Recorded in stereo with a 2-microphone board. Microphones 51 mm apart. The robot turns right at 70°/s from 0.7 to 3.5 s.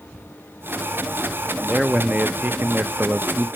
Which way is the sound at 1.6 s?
Straight behind.